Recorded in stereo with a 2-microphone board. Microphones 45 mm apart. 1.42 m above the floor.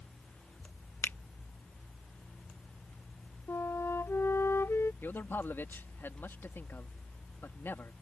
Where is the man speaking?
60° left (ahead or behind).